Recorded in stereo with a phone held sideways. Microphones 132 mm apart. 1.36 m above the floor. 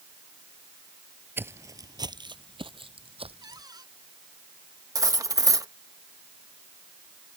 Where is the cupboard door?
30° right (ahead or behind).